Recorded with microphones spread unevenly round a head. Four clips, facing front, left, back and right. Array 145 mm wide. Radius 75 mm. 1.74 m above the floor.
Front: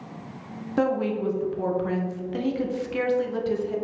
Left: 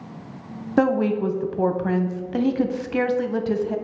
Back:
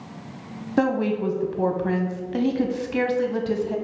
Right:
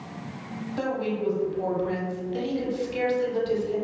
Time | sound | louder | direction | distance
0.8 | a woman speaking | left 9 dB, back 2 dB | 115° left | 0.9 m